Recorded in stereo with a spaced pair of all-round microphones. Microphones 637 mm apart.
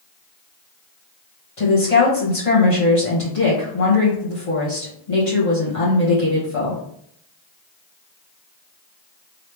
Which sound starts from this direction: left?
A woman speaking, at 1.6 s.